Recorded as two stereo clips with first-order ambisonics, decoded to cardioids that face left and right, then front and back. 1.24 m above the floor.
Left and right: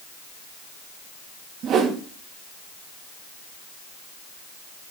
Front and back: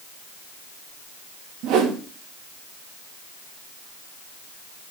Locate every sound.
1.6 s a whoosh: 140° right, 2.5 m